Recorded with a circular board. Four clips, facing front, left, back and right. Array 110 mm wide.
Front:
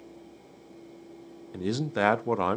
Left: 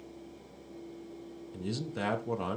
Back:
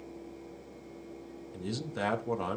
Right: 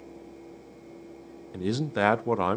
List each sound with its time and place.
1.5 s a man speaking: 50° right, 0.6 m